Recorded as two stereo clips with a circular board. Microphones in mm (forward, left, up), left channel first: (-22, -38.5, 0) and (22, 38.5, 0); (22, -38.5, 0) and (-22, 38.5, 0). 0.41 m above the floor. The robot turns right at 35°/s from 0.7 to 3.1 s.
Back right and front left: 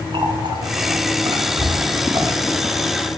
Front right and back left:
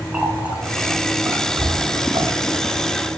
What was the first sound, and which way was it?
A running tap, 45° left.